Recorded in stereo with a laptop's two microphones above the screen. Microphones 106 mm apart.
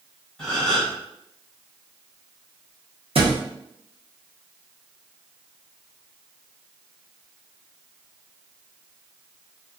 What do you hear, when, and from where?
0.4 s a gasp: 5° left (ahead or behind), 1.6 m
3.1 s a thud: 65° right (ahead or behind), 0.7 m